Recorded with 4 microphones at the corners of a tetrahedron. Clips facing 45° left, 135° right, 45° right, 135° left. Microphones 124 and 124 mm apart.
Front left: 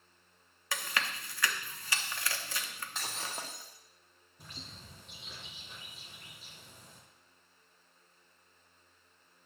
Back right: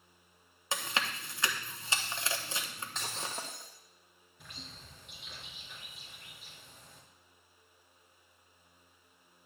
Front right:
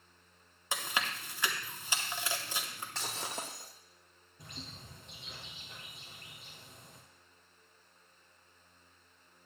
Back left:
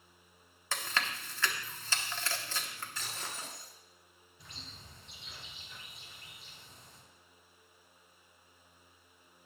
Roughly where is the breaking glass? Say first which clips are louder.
Back right 1 dB, front right 6 dB; ahead right.